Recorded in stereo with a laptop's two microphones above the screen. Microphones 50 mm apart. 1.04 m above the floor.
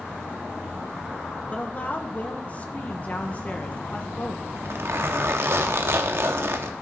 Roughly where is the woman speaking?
Left.